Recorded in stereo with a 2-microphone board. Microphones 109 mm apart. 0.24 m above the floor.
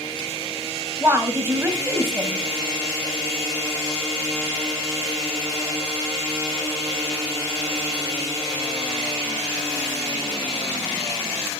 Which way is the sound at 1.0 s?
20° right (ahead or behind).